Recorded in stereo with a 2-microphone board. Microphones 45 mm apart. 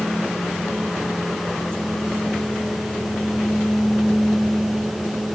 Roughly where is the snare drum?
No snare drum in this recording.